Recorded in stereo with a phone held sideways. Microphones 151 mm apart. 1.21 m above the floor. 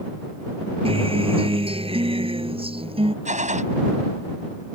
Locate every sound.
0.8 s a guitar: 40° right (ahead or behind)
3.2 s a gunshot: 50° right (ahead or behind)